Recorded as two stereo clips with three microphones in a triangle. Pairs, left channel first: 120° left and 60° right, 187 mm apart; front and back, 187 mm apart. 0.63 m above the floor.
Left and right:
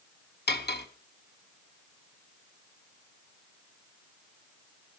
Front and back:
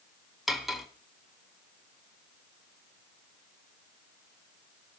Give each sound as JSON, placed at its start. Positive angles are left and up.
{"t": 0.5, "sound": "cutlery clinking", "azimuth_deg": 90, "distance_m": 1.1}